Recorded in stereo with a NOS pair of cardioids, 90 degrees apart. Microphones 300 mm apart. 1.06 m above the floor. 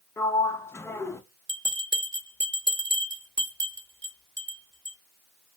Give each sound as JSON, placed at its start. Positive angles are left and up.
{"t": 0.2, "sound": "a sliding door", "azimuth_deg": 10, "distance_m": 0.5}
{"t": 1.5, "sound": "a bell", "azimuth_deg": -35, "distance_m": 1.5}